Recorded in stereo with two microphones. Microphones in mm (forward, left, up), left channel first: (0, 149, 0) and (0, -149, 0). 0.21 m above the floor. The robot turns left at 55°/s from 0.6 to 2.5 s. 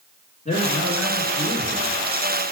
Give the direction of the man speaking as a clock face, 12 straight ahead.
7 o'clock.